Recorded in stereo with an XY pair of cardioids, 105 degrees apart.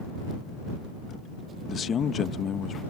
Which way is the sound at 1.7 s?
50° left.